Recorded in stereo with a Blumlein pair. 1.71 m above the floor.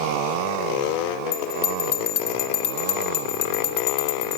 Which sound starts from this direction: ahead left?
A bell, at 1.3 s.